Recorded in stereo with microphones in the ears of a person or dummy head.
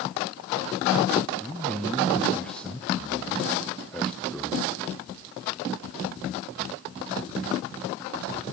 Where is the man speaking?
5° left (ahead or behind), 0.6 m.